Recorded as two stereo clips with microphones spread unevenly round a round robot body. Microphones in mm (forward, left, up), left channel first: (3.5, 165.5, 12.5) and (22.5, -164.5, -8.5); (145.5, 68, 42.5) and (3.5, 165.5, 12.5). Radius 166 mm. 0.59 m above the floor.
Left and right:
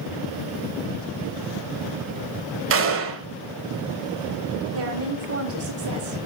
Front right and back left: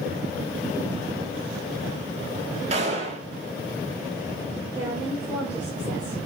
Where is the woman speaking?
135° right, 1.8 m.